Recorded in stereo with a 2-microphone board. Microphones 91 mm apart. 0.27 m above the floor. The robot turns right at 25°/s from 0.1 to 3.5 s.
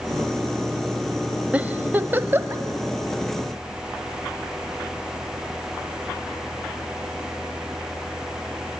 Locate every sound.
1.5 s a giggle: 15° right (ahead or behind), 0.9 m; by 2.6 s 25° right (ahead or behind), 0.9 m